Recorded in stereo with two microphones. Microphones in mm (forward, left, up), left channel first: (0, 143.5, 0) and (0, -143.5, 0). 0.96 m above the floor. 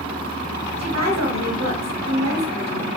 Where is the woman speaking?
65° right (ahead or behind), 1.2 m.